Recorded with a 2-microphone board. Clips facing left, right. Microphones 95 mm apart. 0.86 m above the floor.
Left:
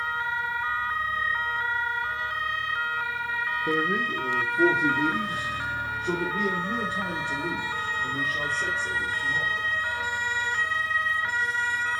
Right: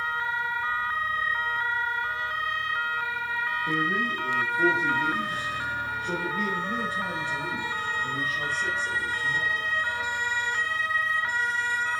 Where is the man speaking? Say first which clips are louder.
Left 2 dB; 60° left (ahead or behind), 1.4 m; by 9.7 s 65° left (ahead or behind), 4 m.